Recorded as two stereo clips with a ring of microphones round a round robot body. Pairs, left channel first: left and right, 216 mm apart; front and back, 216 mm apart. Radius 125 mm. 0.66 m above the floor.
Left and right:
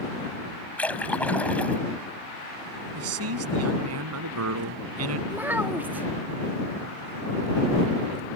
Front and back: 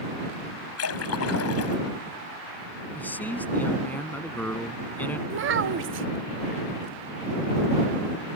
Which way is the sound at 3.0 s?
85° right.